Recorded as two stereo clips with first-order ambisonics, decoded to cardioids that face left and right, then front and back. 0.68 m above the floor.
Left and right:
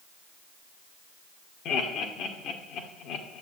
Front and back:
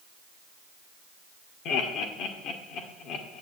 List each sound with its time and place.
1.6 s laughter: 40° left, 1.8 m